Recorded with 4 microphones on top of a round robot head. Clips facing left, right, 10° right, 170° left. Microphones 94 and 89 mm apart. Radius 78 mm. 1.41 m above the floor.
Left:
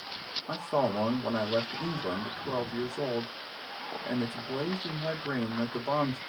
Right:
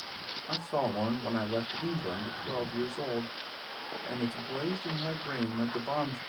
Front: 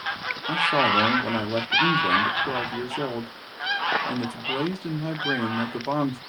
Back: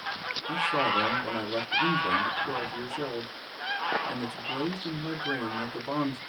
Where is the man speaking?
20° left, 1.4 m.